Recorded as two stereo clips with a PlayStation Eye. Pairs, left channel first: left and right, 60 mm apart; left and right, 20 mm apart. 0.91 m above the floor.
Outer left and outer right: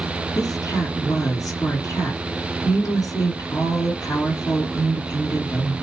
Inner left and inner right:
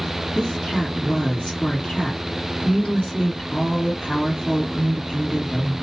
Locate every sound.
0.3 s a woman speaking: 75° left (ahead or behind), 2.5 m